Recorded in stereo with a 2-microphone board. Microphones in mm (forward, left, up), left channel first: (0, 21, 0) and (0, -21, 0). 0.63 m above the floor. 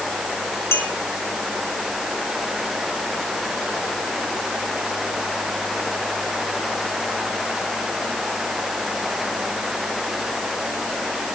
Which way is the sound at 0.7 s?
65° left (ahead or behind).